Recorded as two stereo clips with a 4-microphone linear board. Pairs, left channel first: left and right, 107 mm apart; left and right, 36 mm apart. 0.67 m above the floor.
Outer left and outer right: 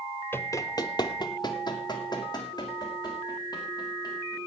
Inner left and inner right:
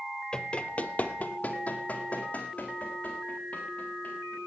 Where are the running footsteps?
20° left (ahead or behind), 0.7 m; by 4.4 s 35° left (ahead or behind), 4 m.